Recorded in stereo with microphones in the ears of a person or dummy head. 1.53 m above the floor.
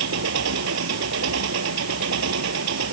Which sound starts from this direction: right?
An engine running, at 0.0 s.